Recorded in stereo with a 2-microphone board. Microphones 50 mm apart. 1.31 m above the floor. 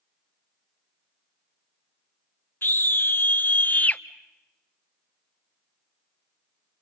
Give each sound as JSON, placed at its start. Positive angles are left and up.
{"t": 2.6, "sound": "a scream", "side_deg": 45, "distance_m": 1.7}